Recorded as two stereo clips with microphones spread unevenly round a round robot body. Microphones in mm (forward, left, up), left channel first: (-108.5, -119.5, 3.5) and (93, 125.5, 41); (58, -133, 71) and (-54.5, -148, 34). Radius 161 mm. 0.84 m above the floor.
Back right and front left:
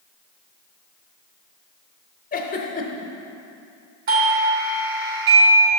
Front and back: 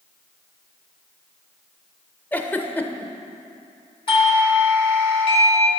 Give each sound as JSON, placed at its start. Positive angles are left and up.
{"t": 2.3, "sound": "a giggle", "azimuth_deg": -85, "distance_m": 0.6}
{"t": 4.1, "sound": "a doorbell", "azimuth_deg": 40, "distance_m": 0.8}